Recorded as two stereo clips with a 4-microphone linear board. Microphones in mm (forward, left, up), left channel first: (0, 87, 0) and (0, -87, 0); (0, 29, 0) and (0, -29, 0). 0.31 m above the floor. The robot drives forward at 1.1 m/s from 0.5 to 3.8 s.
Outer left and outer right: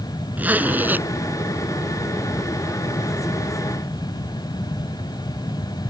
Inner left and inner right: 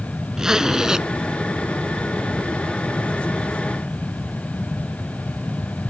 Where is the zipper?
10° right (ahead or behind).